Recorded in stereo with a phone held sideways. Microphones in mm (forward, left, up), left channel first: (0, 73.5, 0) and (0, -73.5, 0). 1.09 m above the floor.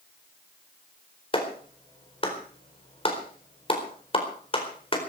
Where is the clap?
40° left (ahead or behind), 4.5 m.